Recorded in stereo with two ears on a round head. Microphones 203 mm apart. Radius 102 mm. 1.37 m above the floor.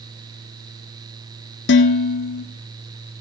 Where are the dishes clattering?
55° left (ahead or behind), 1.6 m.